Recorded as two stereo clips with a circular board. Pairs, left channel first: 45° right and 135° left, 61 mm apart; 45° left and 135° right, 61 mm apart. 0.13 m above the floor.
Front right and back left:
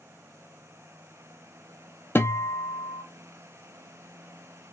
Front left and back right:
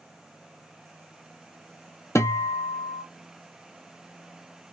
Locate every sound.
2.1 s a guitar: 10° left, 0.5 m